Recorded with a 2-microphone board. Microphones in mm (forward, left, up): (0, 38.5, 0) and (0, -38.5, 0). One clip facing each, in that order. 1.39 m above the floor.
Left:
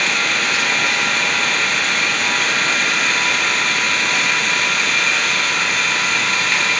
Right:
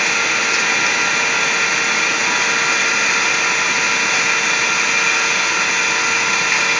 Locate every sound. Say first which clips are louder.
0.0 s an engine running: right 1 dB; 10° right (ahead or behind), 1.4 m